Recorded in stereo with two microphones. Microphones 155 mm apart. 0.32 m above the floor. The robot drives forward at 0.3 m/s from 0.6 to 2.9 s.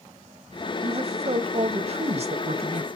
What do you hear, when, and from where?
0.8 s a man speaking: 45° right (ahead or behind), 1.3 m